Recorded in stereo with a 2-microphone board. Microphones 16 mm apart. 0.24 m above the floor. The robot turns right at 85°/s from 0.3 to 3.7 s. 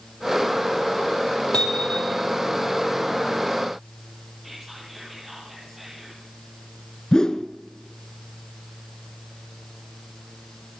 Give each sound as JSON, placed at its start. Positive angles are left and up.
{"t": 1.5, "sound": "hammering", "azimuth_deg": 90, "distance_m": 3.5}
{"t": 4.4, "sound": "whispering", "side_deg": -20, "distance_m": 7.5}
{"t": 7.1, "sound": "a whoosh", "side_deg": 40, "distance_m": 1.5}